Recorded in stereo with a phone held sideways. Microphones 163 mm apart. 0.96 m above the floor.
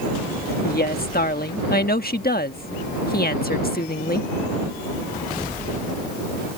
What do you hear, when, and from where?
0.6 s a woman speaking: 70° left (ahead or behind)